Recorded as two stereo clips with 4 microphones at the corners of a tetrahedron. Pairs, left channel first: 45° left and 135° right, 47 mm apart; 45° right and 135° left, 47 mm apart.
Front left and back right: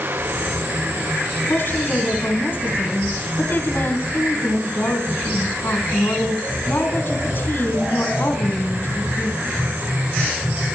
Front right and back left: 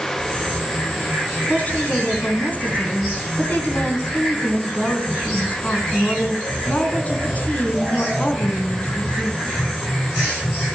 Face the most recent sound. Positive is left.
turn(degrees=10)